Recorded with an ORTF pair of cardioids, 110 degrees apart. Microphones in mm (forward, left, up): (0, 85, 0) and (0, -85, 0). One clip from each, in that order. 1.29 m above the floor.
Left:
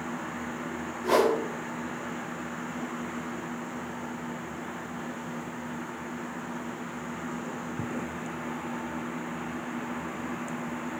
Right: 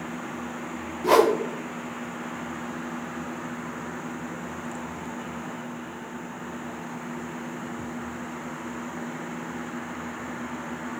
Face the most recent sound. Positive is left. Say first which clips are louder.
# right 5 dB
turn(degrees=-30)